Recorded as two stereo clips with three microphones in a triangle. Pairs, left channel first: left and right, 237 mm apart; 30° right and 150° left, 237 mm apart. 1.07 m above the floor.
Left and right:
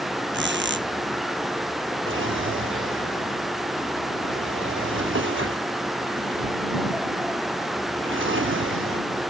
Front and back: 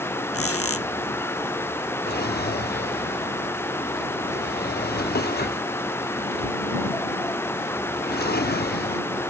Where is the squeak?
50° right.